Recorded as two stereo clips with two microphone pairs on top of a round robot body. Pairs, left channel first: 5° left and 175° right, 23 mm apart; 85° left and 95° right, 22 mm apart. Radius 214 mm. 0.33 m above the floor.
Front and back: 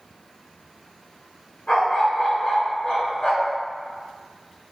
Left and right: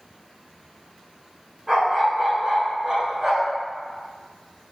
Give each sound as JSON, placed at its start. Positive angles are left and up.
{"t": 1.7, "sound": "a dog barking", "azimuth_deg": -25, "distance_m": 1.4}